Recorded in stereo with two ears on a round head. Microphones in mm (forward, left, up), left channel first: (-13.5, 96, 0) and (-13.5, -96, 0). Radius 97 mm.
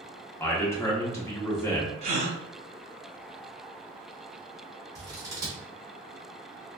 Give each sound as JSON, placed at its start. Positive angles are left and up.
{"t": 0.4, "sound": "a man speaking", "side_deg": 10, "distance_m": 0.7}
{"t": 2.0, "sound": "a gasp", "side_deg": -30, "distance_m": 0.8}
{"t": 5.0, "sound": "scissors", "side_deg": -20, "distance_m": 1.0}